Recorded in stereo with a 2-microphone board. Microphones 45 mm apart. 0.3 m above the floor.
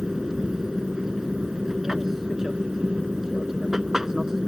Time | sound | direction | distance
0.0 | an aircraft | 10° right (ahead or behind) | ?